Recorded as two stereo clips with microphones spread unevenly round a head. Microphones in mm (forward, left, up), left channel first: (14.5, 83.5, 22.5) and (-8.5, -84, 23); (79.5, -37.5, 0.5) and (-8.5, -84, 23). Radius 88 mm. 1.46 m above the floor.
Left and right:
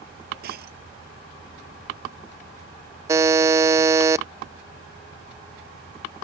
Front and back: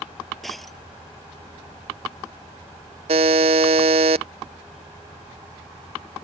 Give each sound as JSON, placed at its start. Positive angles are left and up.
{"t": 0.4, "sound": "breaking glass", "azimuth_deg": -65}
{"t": 3.1, "sound": "a buzzer", "azimuth_deg": -170}